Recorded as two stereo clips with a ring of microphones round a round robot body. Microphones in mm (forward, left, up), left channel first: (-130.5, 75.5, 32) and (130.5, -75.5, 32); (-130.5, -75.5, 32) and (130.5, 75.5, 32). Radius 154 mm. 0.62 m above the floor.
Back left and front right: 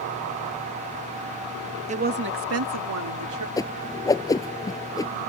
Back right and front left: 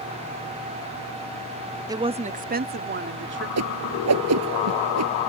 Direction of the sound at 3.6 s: 70° left.